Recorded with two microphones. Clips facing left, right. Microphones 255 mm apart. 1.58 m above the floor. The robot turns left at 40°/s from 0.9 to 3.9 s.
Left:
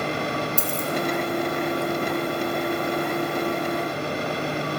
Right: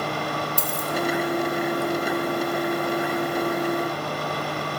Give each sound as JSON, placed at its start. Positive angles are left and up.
{"t": 0.6, "sound": "a dropped coin", "side_deg": 0, "distance_m": 1.2}